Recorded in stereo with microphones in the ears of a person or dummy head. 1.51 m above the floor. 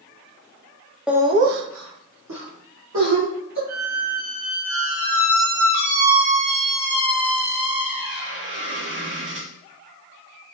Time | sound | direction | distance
1.1 | laughter | centre (ahead or behind) | 0.7 m
3.7 | a squeak | 65° right (ahead or behind) | 1.2 m